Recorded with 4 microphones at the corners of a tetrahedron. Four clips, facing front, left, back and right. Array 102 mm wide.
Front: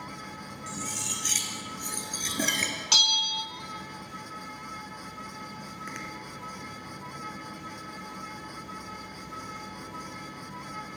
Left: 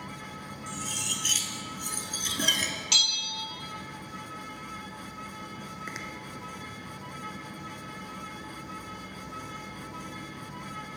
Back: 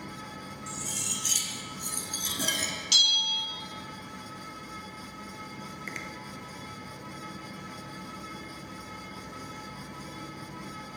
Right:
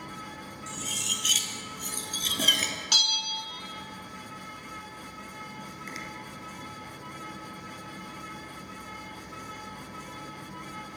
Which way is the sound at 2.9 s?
15° right.